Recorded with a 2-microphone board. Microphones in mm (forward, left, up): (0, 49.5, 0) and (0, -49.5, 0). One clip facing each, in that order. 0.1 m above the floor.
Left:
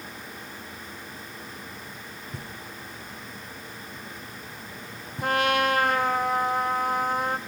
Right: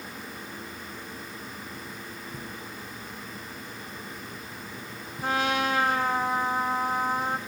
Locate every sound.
2.3 s knocking: 70° left (ahead or behind), 5.5 m
5.2 s a trumpet: 60° left (ahead or behind), 3.5 m